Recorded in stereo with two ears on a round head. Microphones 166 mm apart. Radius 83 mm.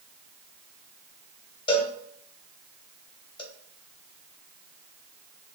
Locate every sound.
1.7 s a cowbell: 30° left (ahead or behind), 1.1 m